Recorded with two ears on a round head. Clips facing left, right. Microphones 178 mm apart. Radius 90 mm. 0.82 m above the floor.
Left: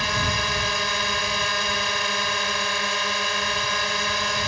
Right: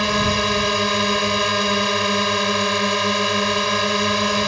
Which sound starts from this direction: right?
A drone, at 0.0 s.